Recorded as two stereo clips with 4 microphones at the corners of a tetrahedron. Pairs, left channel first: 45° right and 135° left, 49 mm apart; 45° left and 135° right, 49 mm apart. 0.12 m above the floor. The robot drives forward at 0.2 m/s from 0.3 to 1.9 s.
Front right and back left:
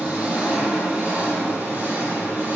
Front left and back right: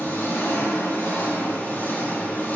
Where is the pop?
No pop in this recording.